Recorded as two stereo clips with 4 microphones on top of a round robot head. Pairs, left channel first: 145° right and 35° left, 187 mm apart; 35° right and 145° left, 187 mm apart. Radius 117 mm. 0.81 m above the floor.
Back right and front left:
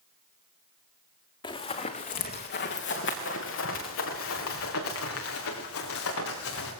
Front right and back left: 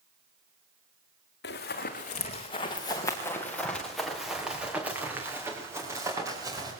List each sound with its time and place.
1.4 s running footsteps: 75° right, 3 m; by 6.7 s 145° right, 7.5 m